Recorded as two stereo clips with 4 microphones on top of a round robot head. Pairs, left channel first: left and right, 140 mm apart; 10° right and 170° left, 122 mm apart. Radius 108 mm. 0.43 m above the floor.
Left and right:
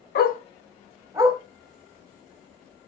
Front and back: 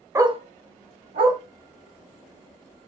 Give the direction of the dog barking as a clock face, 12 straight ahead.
9 o'clock.